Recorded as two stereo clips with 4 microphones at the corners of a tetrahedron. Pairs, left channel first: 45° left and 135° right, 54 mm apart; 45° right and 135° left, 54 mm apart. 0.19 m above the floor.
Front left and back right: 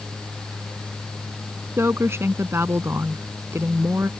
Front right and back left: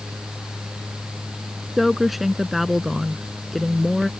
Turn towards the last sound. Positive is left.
turn(degrees=-140)